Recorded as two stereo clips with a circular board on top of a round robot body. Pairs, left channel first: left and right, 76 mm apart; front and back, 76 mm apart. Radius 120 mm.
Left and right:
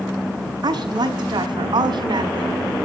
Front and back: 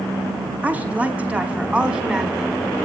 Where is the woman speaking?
110° right, 5 m; by 2.6 s 100° right, 5 m.